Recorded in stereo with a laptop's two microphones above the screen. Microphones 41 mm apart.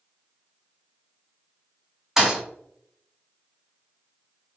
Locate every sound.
2.2 s a thud: 10° right (ahead or behind), 0.8 m